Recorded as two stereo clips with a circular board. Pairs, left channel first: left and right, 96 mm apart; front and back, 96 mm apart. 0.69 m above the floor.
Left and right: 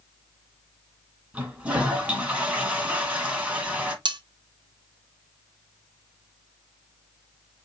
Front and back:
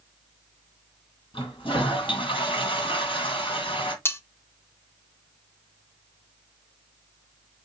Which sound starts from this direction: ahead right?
Cutlery clinking, at 4.0 s.